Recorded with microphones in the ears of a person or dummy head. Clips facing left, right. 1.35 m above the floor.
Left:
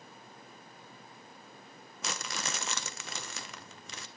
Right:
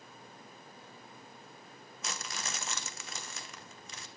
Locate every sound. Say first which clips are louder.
2.0 s crumpling: left 3 dB; 65° left (ahead or behind), 1.0 m